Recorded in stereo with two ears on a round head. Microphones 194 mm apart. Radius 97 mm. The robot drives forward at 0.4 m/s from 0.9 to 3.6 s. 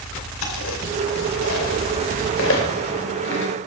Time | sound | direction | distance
0.4 | chewing | 75° left (ahead or behind) | 2.5 m